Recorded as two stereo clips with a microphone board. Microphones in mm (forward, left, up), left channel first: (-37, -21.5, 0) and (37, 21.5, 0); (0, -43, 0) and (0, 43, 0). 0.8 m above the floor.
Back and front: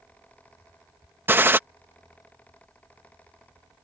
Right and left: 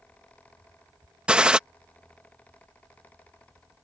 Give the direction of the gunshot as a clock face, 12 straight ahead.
11 o'clock.